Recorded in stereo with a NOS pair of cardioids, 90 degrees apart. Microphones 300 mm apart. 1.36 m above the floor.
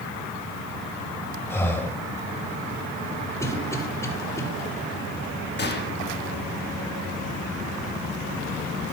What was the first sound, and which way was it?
Breathing, 10° left.